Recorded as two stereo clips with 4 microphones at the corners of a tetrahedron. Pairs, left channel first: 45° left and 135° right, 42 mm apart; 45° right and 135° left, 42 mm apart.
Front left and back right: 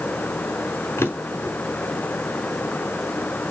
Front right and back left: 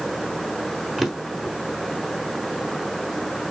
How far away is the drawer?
About 0.8 m.